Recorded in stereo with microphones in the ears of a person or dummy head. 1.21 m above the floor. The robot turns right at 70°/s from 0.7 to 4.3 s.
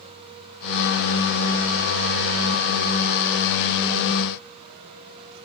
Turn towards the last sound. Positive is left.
No sound to turn to.